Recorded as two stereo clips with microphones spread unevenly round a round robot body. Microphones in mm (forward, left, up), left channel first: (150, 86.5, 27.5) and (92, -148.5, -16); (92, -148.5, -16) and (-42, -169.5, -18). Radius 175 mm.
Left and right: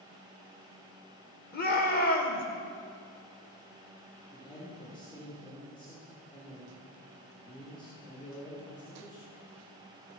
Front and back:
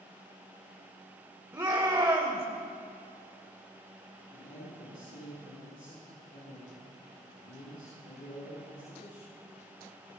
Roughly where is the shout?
Behind left.